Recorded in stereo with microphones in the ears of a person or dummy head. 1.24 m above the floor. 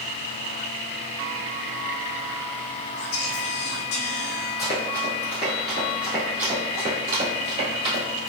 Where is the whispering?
60° left (ahead or behind), 0.9 m.